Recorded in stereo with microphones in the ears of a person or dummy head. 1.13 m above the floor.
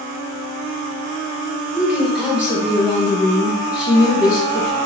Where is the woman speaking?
Centre (ahead or behind), 1.1 m.